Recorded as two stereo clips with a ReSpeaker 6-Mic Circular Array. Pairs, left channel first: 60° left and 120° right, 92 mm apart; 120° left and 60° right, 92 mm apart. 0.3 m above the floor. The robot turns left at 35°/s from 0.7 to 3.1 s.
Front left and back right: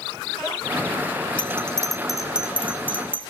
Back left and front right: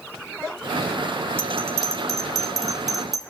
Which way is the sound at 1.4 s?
5° right.